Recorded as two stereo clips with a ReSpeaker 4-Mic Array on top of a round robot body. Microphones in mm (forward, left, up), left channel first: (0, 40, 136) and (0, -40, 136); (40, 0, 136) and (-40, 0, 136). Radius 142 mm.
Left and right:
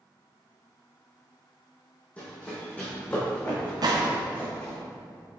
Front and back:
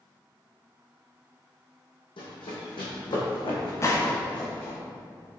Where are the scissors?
No scissors in this recording.